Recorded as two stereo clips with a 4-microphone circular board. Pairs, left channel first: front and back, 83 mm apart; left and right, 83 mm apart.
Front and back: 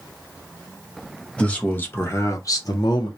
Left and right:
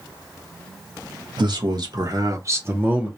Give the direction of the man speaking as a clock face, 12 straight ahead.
2 o'clock.